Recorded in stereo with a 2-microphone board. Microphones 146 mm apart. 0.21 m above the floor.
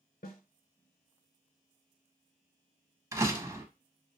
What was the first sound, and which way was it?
A snare drum, 80° left.